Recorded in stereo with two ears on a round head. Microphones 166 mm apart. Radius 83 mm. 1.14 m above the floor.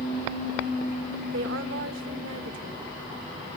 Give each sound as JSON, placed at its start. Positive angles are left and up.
{"t": 1.3, "sound": "a woman speaking", "side_deg": -70, "distance_m": 1.4}